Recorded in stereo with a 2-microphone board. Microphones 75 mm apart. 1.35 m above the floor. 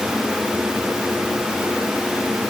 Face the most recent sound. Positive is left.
No sound to turn to.